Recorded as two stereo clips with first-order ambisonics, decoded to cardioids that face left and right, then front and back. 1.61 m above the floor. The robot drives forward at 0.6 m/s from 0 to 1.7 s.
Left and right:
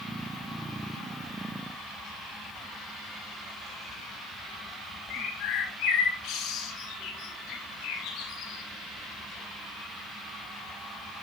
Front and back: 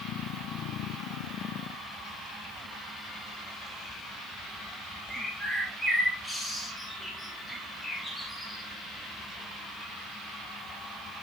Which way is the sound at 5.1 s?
90° left.